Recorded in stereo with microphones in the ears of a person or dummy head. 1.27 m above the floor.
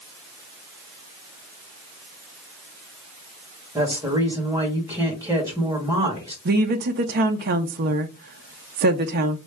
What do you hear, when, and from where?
3.8 s a woman speaking: 10° right (ahead or behind), 1.5 m
6.5 s a woman speaking: 50° right (ahead or behind), 0.5 m